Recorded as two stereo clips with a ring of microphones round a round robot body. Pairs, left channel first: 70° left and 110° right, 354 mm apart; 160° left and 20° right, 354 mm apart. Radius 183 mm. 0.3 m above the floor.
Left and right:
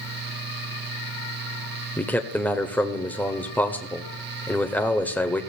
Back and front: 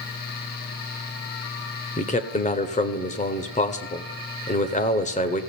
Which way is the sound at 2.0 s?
145° left.